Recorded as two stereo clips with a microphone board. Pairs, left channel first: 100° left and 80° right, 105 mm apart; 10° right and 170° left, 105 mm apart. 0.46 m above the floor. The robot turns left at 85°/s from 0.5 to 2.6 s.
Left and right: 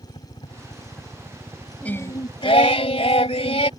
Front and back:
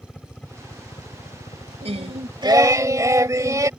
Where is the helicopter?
70° left; by 3.8 s 100° right.